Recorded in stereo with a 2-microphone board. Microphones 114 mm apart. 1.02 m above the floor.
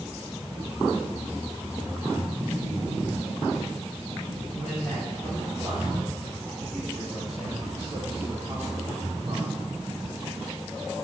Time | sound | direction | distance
4.5 | a man speaking | 5° left (ahead or behind) | 3.5 m